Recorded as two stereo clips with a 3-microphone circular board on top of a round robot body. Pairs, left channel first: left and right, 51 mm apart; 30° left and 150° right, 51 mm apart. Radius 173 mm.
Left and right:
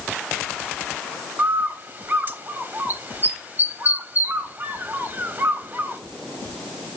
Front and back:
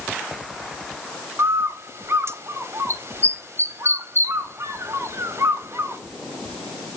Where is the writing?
No writing in this recording.